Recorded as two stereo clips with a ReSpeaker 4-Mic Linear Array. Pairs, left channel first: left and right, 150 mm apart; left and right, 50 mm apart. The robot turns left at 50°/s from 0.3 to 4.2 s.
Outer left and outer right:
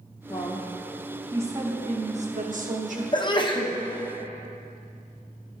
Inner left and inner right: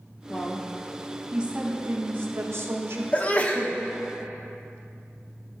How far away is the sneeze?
About 0.8 m.